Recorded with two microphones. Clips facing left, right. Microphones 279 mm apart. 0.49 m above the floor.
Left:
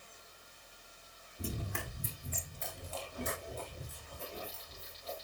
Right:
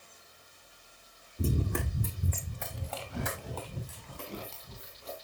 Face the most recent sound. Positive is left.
turn(degrees=-80)